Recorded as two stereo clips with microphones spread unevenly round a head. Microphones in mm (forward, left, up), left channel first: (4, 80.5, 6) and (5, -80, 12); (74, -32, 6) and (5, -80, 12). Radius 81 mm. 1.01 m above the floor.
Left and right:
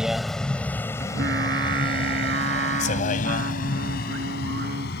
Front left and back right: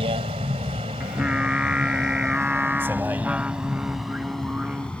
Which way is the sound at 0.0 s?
175° right.